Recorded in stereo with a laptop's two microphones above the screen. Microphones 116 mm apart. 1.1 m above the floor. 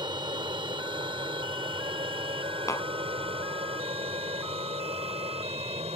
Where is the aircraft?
45° right (ahead or behind); by 6.0 s 65° right (ahead or behind).